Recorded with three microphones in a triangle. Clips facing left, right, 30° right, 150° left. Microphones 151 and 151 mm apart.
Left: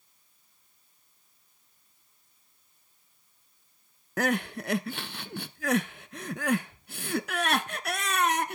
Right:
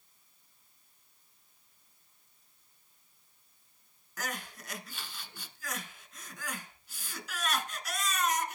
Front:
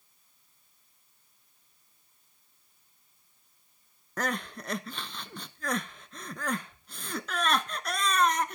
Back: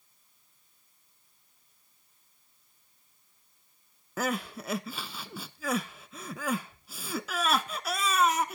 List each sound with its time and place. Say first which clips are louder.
4.2 s crying: left 13 dB, back 1 dB; 65° left, 0.6 m